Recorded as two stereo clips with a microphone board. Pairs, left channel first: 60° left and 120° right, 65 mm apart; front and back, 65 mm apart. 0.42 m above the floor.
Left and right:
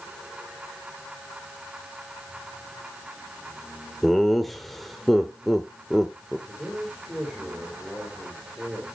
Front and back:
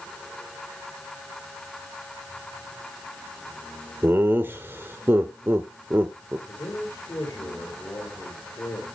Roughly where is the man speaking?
Ahead right.